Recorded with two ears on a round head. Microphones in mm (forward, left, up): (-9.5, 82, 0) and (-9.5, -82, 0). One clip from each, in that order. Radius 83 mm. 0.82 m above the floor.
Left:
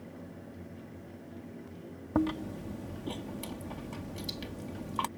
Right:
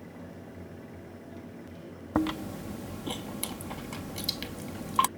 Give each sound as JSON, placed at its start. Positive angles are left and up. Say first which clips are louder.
{"t": 2.1, "sound": "chewing", "louder": "right 2 dB", "side_deg": -40}